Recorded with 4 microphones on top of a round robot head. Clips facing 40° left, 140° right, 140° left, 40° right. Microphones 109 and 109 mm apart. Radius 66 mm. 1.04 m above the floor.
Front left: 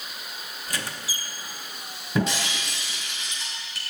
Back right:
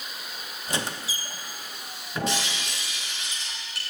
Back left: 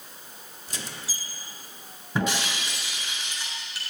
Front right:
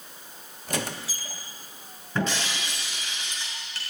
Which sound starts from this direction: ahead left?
Breaking glass, at 2.1 s.